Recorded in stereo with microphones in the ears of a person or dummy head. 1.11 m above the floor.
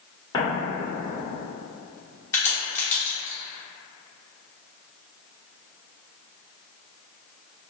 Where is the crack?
15° left (ahead or behind), 0.9 m.